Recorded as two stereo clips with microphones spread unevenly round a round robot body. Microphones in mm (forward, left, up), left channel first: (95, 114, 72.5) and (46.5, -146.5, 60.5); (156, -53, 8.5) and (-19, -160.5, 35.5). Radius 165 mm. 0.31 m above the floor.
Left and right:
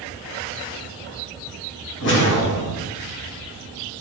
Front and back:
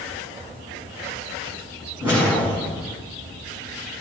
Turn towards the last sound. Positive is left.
turn(degrees=130)